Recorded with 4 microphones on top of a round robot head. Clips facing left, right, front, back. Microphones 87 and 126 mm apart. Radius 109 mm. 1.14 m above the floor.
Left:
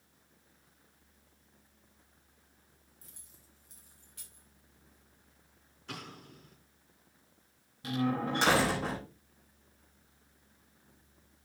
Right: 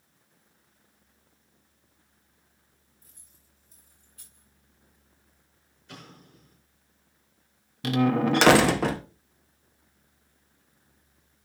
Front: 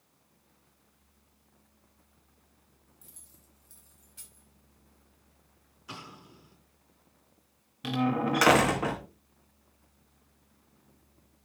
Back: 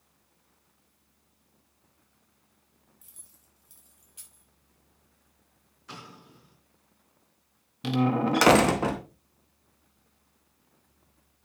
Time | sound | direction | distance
3.0 | keys jangling | 100° left | 4.5 m
5.9 | an explosion | 80° left | 4.5 m
7.8 | a door slam | 110° right | 0.7 m